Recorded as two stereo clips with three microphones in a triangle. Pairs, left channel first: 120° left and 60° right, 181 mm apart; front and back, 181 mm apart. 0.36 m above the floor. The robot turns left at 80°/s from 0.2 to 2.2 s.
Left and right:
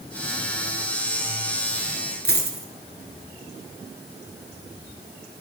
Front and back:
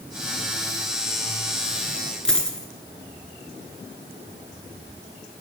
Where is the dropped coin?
85° right, 0.9 m.